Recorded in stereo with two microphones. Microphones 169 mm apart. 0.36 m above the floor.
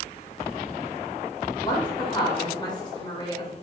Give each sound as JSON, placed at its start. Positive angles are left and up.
{"t": 1.6, "sound": "a woman speaking", "side_deg": 25, "distance_m": 1.4}